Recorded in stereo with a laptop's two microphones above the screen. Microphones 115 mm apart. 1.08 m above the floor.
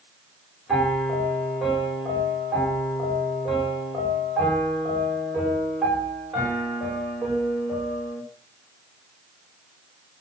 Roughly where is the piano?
Centre.